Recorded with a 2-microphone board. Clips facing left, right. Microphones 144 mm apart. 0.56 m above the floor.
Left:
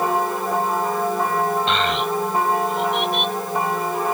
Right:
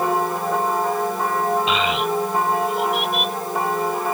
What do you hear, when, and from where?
1.7 s a child speaking: 5° right (ahead or behind)